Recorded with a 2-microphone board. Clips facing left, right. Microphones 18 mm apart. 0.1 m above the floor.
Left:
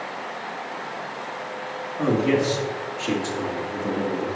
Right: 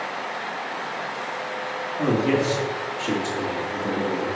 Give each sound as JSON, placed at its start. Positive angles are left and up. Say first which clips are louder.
{"t": 2.0, "sound": "a man speaking", "louder": "left 1 dB", "side_deg": 20, "distance_m": 1.5}